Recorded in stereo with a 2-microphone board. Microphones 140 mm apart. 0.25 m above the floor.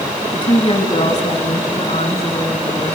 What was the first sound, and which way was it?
A woman speaking, 40° left (ahead or behind).